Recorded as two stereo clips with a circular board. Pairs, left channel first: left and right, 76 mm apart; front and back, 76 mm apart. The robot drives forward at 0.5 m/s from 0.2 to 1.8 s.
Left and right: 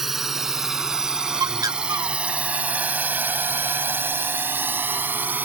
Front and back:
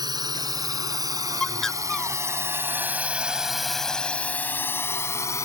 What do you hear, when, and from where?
0.0 s a drone: 175° right; by 5.5 s 30° right
1.4 s a bird: 75° right; by 2.2 s 85° right